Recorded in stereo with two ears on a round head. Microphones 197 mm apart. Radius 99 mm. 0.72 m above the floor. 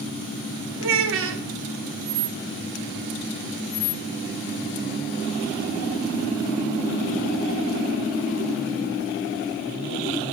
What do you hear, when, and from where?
0.8 s a child speaking: 65° right (ahead or behind), 0.7 m